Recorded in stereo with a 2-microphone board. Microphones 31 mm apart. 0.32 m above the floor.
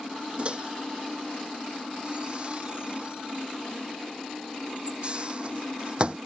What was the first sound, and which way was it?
A microwave, 35° right (ahead or behind).